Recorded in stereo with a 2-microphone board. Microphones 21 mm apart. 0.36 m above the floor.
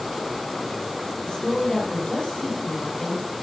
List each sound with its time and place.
1.2 s a woman speaking: 25° left (ahead or behind), 8 m